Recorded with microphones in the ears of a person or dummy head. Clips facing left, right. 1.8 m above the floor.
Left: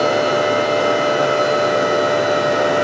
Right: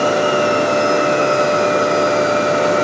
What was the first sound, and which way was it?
A machine running, 55° right (ahead or behind).